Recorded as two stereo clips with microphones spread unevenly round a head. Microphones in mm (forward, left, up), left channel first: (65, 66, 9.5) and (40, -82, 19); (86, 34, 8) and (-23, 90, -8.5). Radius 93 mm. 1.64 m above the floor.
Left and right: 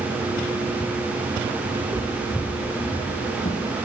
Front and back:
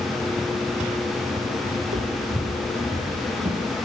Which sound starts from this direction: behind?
Footsteps, at 1.8 s.